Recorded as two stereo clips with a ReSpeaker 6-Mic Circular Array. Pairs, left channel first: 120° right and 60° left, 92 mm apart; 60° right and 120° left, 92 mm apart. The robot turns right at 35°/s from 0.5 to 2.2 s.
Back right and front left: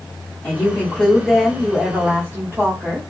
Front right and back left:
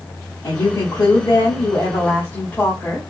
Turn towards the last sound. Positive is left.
turn(degrees=5)